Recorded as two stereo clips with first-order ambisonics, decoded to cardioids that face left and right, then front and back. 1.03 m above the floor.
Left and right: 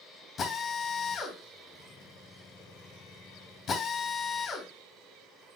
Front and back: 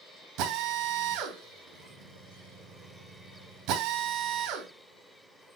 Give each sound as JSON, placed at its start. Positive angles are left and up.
{"t": 0.4, "sound": "a drill", "azimuth_deg": 155, "distance_m": 3.5}